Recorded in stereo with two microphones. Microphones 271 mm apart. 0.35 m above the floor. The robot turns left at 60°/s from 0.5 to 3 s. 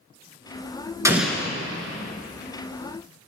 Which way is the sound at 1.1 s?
10° right (ahead or behind).